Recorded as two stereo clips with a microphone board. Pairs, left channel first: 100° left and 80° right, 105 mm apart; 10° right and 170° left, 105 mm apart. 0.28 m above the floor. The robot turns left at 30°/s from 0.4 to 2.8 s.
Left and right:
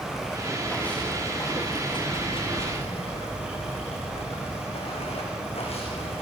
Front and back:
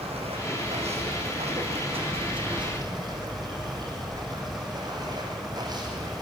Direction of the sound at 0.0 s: 170° right.